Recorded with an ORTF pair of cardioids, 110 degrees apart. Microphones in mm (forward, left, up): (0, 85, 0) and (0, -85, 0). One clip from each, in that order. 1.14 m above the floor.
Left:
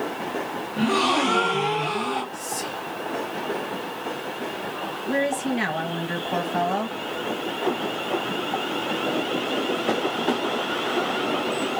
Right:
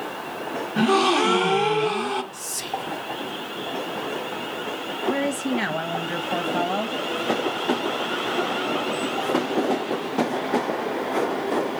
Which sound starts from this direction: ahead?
A woman speaking, at 5.1 s.